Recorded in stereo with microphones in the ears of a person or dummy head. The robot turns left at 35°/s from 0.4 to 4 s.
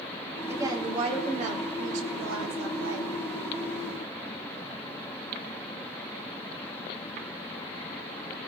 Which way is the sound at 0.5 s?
15° right.